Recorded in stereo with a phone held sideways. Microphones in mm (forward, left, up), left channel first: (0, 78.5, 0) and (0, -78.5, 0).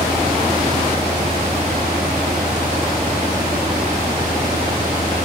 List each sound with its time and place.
0.0 s a fan: 45° right (ahead or behind)